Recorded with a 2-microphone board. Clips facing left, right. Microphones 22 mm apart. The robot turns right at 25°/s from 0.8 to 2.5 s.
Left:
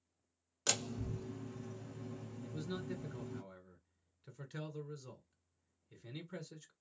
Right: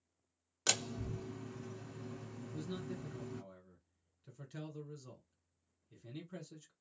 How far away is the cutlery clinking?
I don't hear cutlery clinking.